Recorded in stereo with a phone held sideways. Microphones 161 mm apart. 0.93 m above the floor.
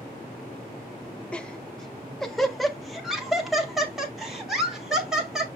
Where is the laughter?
5° left (ahead or behind), 0.8 m; by 5.5 s 5° right (ahead or behind), 3 m.